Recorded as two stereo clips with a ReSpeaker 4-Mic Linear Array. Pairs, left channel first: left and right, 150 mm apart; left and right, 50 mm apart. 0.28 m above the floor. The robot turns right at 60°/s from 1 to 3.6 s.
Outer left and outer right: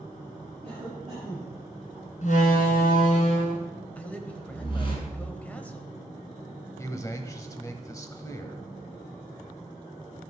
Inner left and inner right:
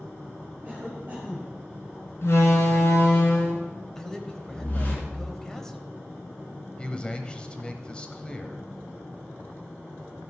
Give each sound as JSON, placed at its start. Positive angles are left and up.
{"t": 0.6, "sound": "a cough", "azimuth_deg": -45, "distance_m": 6.0}
{"t": 2.2, "sound": "a door slam", "azimuth_deg": 60, "distance_m": 2.5}
{"t": 4.0, "sound": "a man speaking", "side_deg": 10, "distance_m": 1.1}
{"t": 6.8, "sound": "a man speaking", "side_deg": 20, "distance_m": 1.2}